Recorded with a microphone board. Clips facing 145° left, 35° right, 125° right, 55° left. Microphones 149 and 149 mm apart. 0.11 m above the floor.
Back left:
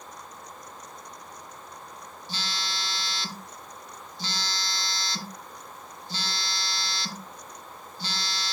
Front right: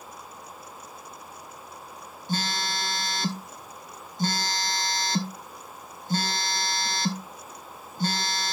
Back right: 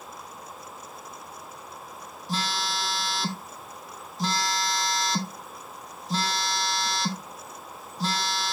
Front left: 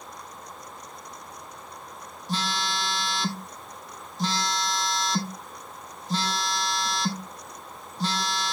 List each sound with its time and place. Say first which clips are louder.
2.3 s a phone buzzing: front right 7 dB, front left 1 dB; 35° right, 1.1 m